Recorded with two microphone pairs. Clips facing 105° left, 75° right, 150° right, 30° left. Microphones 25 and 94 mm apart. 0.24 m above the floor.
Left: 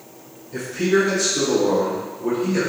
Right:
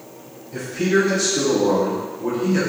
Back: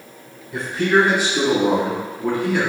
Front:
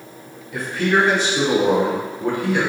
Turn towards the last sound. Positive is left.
turn(degrees=-15)